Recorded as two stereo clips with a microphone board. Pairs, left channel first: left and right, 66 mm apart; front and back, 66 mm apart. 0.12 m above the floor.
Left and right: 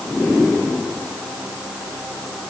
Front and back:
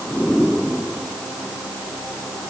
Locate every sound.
Only background noise.